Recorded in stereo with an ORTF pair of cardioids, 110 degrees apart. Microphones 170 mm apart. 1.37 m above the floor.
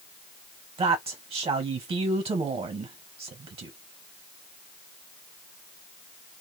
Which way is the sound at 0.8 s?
35° right.